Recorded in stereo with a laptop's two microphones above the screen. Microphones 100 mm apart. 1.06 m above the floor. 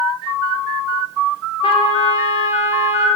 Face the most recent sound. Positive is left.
turn(degrees=70)  # may be behind; listen again after turning